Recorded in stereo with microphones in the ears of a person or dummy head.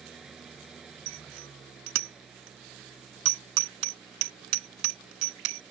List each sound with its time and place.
0.0 s an engine running: centre (ahead or behind)
1.1 s a bicycle bell: 85° right